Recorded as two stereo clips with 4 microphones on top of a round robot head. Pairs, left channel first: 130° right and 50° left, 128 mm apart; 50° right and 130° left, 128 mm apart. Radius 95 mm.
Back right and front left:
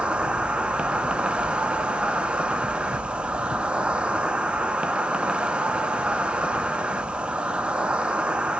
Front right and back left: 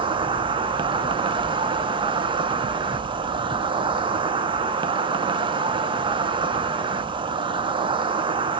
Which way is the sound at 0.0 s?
130° left.